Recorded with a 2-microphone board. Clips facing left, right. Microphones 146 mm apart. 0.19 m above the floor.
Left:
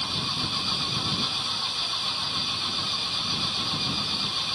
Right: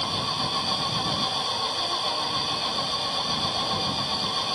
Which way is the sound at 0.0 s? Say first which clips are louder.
Right 4 dB; 55° right (ahead or behind).